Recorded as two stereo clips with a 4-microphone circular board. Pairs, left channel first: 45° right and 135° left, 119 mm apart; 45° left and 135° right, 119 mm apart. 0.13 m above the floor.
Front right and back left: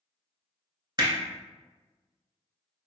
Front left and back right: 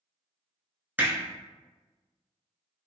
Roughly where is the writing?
No writing in this recording.